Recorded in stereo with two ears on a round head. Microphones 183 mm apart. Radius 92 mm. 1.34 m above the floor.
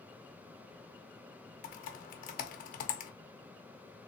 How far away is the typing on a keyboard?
About 0.8 m.